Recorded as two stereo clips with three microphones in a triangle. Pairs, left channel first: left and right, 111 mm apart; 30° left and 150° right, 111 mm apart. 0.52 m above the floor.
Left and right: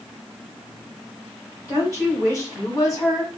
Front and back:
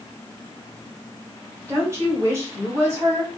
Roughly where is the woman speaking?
Behind left.